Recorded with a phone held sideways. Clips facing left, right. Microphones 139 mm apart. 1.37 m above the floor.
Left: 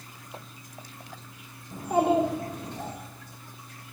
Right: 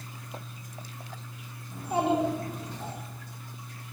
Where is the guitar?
I don't hear a guitar.